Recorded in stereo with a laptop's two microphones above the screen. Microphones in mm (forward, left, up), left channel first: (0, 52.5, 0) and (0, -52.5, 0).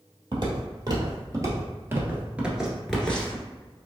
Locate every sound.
0.3 s footsteps: 45° right (ahead or behind), 1.9 m; by 3.5 s 20° left (ahead or behind), 1.1 m